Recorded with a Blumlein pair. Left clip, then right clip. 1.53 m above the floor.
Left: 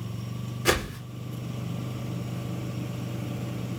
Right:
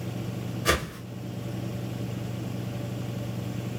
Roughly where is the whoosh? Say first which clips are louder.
Left 1 dB; ahead.